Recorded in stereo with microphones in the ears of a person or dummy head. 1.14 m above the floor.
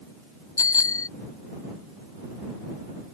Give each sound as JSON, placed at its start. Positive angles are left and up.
{"t": 0.6, "sound": "a bicycle bell", "side_deg": 20}